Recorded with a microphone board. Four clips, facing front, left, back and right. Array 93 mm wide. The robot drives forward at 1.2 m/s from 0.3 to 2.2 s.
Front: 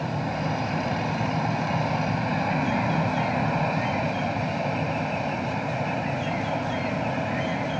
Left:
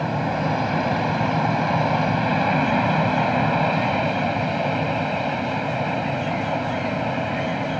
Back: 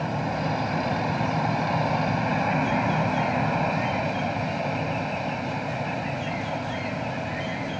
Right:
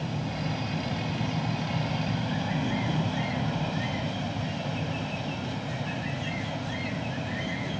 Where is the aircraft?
95° left; by 7.8 s 70° left.